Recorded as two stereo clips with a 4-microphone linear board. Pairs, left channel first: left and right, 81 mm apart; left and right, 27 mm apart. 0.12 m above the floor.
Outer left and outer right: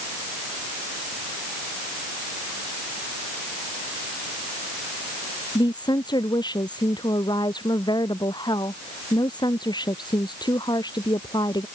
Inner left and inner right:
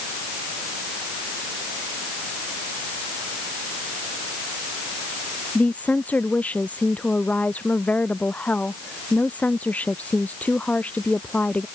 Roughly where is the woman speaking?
Left.